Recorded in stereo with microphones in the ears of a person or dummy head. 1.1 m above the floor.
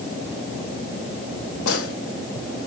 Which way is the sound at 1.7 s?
75° left (ahead or behind).